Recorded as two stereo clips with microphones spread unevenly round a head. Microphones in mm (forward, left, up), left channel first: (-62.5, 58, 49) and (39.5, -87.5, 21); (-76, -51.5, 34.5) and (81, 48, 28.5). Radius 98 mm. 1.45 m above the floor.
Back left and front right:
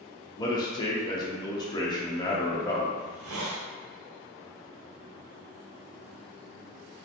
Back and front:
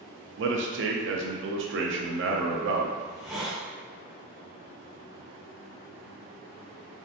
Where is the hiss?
55° right, 0.6 m.